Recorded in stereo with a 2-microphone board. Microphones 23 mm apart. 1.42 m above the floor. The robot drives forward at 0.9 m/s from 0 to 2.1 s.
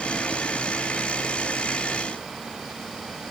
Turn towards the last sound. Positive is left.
No sound to turn to.